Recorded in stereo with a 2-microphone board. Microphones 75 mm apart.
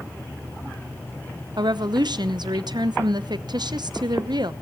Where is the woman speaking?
70° right (ahead or behind), 0.9 m.